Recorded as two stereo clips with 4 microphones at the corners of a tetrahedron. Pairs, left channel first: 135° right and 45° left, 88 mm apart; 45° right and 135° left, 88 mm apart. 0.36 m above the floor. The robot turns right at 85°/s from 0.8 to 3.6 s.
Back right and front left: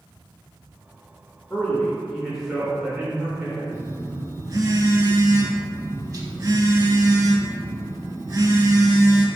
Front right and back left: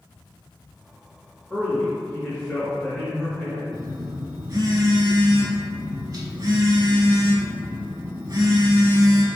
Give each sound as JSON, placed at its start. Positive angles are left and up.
{"t": 1.5, "sound": "a man speaking", "azimuth_deg": -115, "distance_m": 0.8}
{"t": 3.7, "sound": "a phone buzzing", "azimuth_deg": 90, "distance_m": 0.5}